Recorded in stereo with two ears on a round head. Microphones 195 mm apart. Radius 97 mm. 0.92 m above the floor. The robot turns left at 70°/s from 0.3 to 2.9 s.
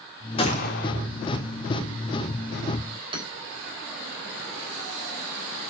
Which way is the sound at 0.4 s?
155° left.